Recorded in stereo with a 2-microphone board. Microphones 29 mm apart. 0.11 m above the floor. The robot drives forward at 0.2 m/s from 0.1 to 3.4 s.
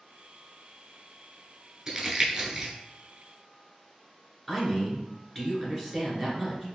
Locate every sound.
1.9 s crumpling: 20° right (ahead or behind), 0.7 m
4.5 s a man speaking: 5° left (ahead or behind), 1.2 m